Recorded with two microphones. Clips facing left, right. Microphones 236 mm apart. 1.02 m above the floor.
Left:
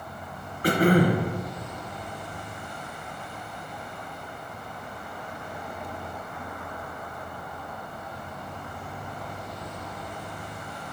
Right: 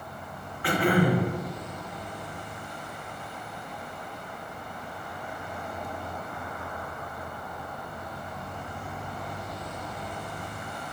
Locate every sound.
0.6 s throat clearing: 45° left (ahead or behind), 0.8 m